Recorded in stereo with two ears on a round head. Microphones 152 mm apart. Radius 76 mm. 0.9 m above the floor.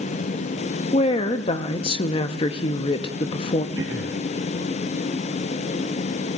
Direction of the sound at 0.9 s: 30° left (ahead or behind).